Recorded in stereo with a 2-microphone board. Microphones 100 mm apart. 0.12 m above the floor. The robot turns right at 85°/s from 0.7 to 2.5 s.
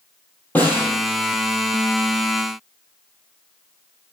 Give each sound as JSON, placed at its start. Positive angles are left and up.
{"t": 0.6, "sound": "a snare drum", "side_deg": 15, "distance_m": 3.5}